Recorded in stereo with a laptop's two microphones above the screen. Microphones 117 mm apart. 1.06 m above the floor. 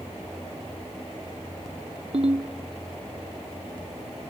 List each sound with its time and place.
2.1 s a ringtone: 55° right (ahead or behind), 0.9 m